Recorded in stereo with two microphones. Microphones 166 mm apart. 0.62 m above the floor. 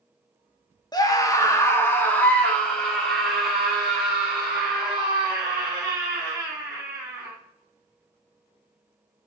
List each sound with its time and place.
0.9 s a scream: 25° left (ahead or behind), 0.9 m; by 7.3 s 10° right (ahead or behind), 3.5 m